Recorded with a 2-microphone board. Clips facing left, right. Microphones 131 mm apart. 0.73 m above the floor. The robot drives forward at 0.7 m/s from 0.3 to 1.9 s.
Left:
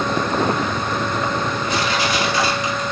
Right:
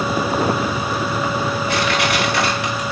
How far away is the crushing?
About 2.5 m.